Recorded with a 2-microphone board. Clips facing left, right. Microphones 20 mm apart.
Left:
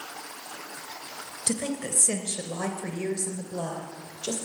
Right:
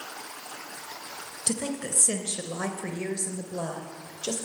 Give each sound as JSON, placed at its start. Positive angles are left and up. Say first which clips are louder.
{"t": 1.5, "sound": "a woman speaking", "louder": "left 1 dB", "side_deg": -15, "distance_m": 1.6}